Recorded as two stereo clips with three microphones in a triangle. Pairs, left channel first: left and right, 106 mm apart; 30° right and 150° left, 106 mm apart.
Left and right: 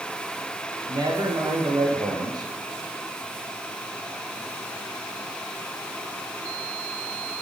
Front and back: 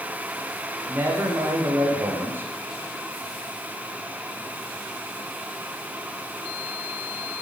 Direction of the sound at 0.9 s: 140° right.